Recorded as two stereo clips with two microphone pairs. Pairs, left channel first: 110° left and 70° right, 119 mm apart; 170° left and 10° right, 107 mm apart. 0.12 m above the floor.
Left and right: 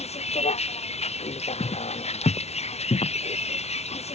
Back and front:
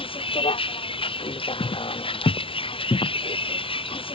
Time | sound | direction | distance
0.0 | a vehicle | 135° left | ?
1.6 | footsteps | 160° left | ?